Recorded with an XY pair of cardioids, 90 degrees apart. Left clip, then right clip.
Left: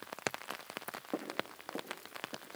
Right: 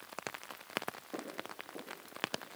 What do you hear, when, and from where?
1.1 s footsteps: 65° left, 7.5 m